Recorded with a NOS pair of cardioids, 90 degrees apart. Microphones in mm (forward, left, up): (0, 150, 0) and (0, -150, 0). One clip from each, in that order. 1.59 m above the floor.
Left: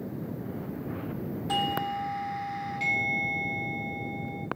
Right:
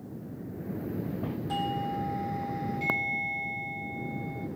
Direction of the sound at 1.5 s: 50° left.